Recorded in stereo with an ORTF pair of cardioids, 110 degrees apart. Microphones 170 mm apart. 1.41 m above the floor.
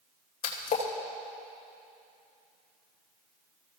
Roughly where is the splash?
Ahead left.